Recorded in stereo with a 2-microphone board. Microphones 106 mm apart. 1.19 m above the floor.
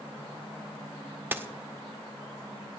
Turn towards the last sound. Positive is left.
turn(degrees=-20)  # may be behind; listen again after turning